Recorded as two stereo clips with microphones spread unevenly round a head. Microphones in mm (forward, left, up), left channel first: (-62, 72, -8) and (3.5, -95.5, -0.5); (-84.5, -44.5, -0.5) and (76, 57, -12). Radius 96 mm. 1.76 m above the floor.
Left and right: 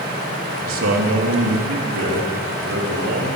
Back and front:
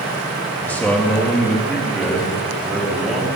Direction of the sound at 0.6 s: 65° right.